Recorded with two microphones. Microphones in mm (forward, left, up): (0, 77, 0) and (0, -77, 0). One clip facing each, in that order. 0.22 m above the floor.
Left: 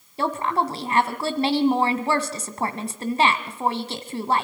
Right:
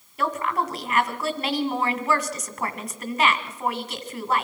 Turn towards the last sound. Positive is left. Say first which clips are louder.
# left 2 dB
turn(degrees=35)  # may be behind; listen again after turning